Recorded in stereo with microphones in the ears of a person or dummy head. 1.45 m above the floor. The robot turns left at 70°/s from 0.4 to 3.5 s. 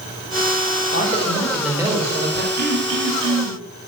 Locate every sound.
0.9 s a man speaking: 45° left, 4.5 m; by 2.5 s 60° right, 4.5 m
2.6 s throat clearing: 50° right, 4 m; by 3.6 s 115° right, 4 m